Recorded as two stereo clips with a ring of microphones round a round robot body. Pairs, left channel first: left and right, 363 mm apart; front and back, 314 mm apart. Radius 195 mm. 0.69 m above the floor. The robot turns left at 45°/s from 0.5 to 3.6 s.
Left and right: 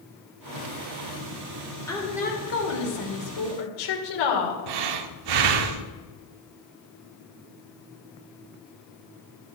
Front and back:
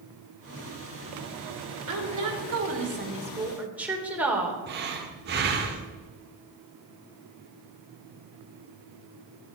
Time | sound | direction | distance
1.9 | a woman speaking | 175° left | 3 m
4.7 | breathing | 115° right | 0.9 m